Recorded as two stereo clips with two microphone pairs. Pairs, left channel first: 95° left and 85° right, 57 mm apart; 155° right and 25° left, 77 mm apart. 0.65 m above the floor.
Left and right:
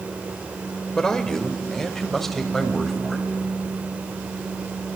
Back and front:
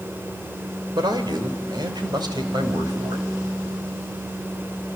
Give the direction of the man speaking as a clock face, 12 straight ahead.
11 o'clock.